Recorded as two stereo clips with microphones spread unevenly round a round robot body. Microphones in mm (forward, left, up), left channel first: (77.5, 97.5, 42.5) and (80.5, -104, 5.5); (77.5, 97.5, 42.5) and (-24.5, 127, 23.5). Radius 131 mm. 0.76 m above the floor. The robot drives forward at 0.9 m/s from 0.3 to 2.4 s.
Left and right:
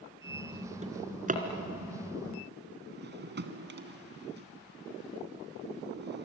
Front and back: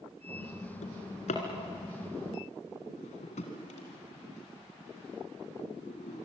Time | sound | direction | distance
0.8 | a drawer | 30° right | 3 m